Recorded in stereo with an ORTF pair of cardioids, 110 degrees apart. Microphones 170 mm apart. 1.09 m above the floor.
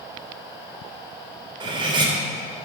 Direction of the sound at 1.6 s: 30° right.